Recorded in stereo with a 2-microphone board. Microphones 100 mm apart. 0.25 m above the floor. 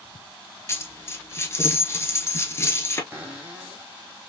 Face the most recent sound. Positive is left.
turn(degrees=-20)  # may be behind; listen again after turning